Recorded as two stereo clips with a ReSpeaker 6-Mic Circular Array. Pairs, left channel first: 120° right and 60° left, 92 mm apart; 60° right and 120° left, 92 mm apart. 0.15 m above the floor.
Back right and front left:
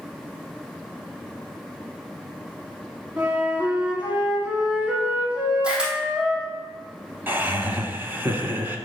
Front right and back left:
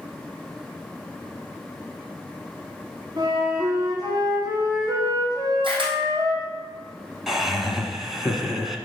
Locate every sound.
3.2 s a flute: 130° left, 2 m
5.6 s a camera shutter: 140° left, 2 m
7.3 s laughter: 35° left, 1.1 m